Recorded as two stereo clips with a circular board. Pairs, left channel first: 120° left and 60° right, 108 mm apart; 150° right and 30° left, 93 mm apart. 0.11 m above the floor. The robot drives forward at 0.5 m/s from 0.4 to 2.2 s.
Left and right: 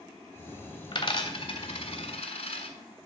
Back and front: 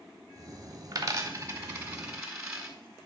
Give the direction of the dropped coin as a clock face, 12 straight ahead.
9 o'clock.